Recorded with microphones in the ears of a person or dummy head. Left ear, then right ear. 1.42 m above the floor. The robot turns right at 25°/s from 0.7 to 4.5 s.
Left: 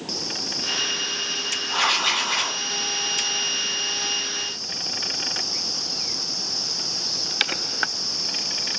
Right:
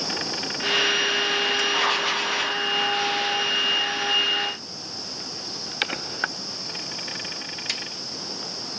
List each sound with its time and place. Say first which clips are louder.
1.7 s writing: left 1 dB; 15° left (ahead or behind), 1.4 m; by 2.6 s 5° left (ahead or behind), 1.4 m